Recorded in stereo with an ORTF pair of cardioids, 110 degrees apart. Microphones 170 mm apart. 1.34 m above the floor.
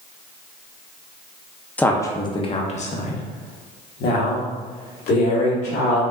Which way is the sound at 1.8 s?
10° left.